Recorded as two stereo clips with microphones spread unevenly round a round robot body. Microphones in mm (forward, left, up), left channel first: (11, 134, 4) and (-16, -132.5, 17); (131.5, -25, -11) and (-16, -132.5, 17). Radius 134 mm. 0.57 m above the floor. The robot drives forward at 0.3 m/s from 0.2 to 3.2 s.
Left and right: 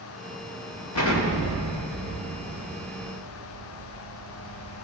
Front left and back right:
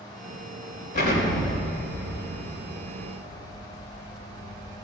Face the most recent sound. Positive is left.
turn(degrees=105)